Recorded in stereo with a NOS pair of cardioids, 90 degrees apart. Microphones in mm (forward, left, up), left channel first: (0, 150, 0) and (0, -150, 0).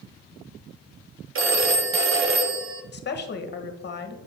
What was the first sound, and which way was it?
A phone ringing, 45° right.